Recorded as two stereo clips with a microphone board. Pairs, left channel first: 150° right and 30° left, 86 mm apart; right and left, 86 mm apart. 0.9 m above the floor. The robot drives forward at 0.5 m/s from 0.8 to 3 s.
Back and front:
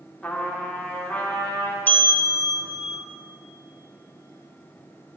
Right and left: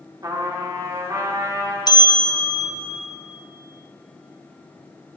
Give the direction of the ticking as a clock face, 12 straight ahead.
No ticking in this recording.